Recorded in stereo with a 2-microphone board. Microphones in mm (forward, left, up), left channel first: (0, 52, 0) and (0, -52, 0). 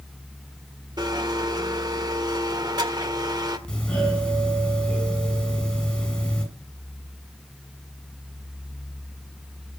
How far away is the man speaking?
I don't hear a man speaking.